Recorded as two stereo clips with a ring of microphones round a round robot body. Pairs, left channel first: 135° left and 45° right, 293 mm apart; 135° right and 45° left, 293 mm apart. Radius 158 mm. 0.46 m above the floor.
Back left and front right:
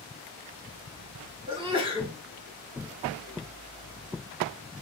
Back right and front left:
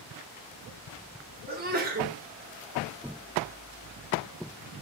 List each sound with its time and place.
1.5 s a sneeze: 15° left, 0.8 m